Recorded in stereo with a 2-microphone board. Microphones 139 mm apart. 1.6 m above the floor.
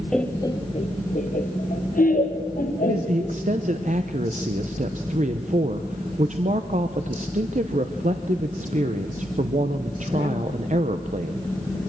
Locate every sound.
0.1 s laughter: 5° left (ahead or behind), 0.9 m; by 3.4 s 85° left, 3 m
2.8 s a man speaking: 60° right (ahead or behind), 0.8 m